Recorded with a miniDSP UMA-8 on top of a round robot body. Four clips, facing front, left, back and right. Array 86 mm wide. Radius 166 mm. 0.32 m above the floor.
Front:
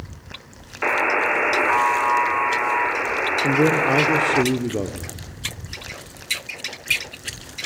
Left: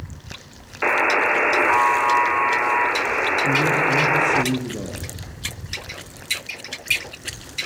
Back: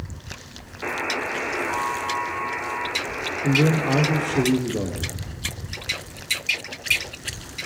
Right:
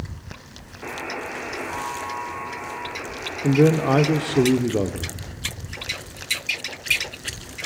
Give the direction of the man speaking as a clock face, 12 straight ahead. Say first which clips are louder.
Right 6 dB, front 2 dB; 2 o'clock.